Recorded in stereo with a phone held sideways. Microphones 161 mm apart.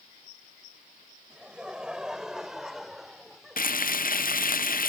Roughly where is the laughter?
Centre.